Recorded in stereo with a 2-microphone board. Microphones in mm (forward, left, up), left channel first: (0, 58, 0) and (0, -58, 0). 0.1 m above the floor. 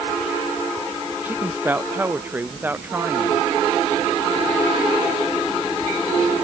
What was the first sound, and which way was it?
A woman speaking, 15° right (ahead or behind).